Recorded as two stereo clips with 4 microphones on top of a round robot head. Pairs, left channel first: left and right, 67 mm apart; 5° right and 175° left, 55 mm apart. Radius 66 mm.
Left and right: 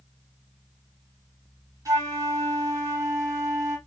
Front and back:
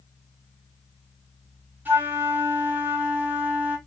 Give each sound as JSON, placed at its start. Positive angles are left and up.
{"t": 1.9, "sound": "a flute", "azimuth_deg": -125, "distance_m": 1.7}